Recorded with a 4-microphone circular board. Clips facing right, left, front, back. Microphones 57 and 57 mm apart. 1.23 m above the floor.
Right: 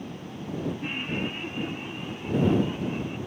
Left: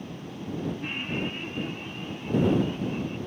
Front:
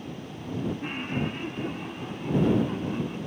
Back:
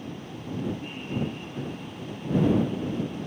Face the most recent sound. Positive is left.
turn(degrees=-15)